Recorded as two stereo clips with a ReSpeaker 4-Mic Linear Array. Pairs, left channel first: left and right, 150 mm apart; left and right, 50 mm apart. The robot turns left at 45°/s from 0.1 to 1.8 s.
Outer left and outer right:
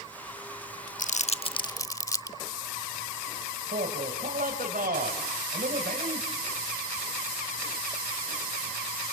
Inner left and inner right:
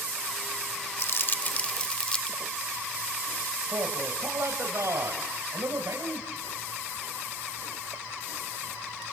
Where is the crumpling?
55° left (ahead or behind), 0.6 m; by 2.4 s 20° left (ahead or behind), 0.6 m.